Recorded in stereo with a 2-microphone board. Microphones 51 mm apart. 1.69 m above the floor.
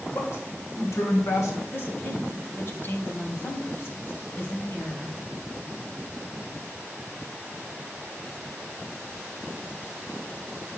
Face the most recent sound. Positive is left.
turn(degrees=45)  # may be behind; listen again after turning